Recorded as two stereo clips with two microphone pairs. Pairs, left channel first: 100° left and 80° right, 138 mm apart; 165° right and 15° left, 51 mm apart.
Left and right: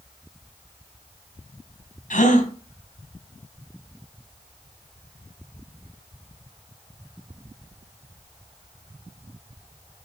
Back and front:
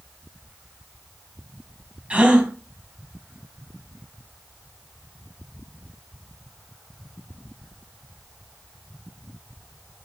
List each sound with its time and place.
2.1 s a gasp: 80° left, 3 m